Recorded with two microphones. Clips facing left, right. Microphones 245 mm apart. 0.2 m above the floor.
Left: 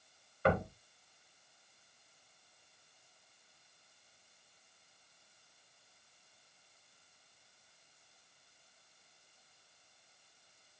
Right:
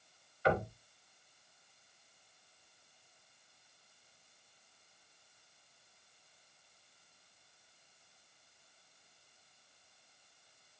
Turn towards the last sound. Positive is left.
turn(degrees=55)  # may be behind; listen again after turning